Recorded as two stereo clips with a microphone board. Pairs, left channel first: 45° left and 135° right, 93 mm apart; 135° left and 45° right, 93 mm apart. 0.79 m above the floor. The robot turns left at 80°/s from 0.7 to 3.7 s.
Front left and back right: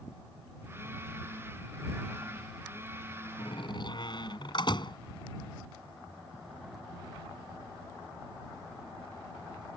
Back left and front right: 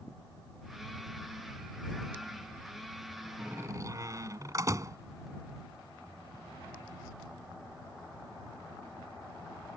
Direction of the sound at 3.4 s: 35° left.